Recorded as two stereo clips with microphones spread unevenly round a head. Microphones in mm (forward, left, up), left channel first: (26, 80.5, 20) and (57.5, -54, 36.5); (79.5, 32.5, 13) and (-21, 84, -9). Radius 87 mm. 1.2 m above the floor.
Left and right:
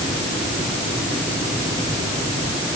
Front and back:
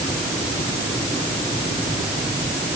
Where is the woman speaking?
No woman speaking in this recording.